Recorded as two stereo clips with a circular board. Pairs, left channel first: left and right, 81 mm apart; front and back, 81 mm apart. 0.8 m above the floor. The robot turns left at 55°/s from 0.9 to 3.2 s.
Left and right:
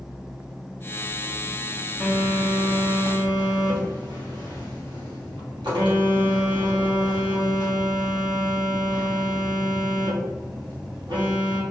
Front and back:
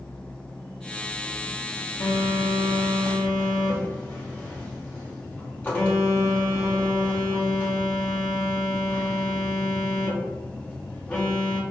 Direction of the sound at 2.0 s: 5° right.